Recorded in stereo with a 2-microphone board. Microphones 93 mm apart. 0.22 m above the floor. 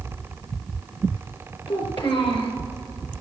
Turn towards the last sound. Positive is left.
turn(degrees=65)  # may be behind; listen again after turning